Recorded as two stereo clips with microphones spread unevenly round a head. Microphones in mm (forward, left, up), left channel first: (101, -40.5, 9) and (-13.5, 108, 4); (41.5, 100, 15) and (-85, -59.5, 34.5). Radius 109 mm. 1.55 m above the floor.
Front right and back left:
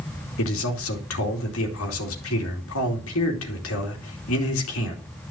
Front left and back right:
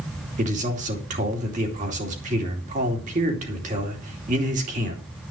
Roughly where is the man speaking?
Right.